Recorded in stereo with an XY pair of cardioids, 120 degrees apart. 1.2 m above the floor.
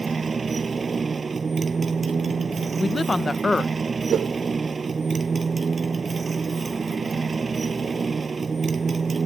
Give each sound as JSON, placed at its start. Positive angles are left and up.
{"t": 0.0, "sound": "a motorcycle", "azimuth_deg": -35}
{"t": 2.8, "sound": "a woman speaking", "azimuth_deg": 10}
{"t": 4.1, "sound": "a whoosh", "azimuth_deg": -60}